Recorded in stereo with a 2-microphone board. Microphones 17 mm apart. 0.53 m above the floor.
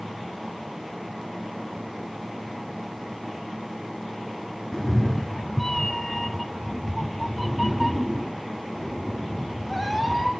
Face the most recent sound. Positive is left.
turn(degrees=-10)  # may be behind; listen again after turning